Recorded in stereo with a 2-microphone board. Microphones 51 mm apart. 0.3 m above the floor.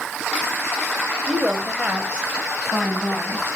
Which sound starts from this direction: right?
A woman speaking, at 1.3 s.